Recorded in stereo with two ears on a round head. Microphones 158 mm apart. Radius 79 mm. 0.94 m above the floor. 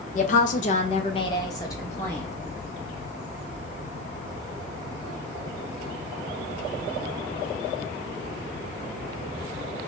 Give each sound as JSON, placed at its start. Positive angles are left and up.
{"t": 0.1, "sound": "a woman speaking", "side_deg": 45, "distance_m": 0.7}